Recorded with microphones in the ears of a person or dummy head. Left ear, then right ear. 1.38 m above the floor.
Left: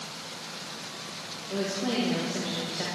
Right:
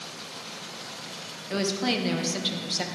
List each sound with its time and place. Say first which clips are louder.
1.5 s a woman speaking: right 3 dB; 50° right (ahead or behind), 1.3 m; by 2.9 s 85° right, 1.2 m